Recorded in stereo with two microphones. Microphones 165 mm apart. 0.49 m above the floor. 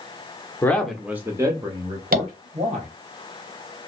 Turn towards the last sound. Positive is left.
turn(degrees=-60)  # may be behind; listen again after turning